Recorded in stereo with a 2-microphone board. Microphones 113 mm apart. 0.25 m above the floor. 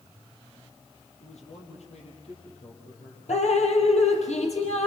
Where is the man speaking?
75° left (ahead or behind), 7.5 m; by 3.2 s 60° left (ahead or behind), 9 m.